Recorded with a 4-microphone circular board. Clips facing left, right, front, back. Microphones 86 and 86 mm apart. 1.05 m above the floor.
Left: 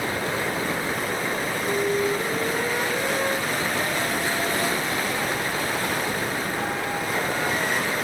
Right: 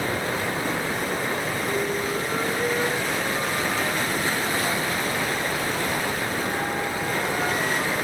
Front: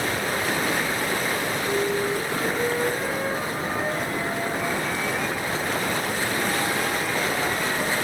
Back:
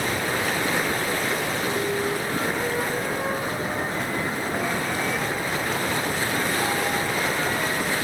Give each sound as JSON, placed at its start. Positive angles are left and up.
{"t": 1.6, "sound": "a flute", "azimuth_deg": 120, "distance_m": 6.0}